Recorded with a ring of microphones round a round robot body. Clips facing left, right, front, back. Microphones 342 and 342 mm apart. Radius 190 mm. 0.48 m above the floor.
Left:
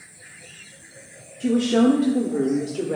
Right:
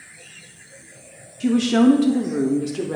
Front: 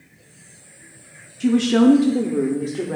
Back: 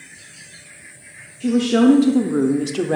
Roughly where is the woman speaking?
Ahead right.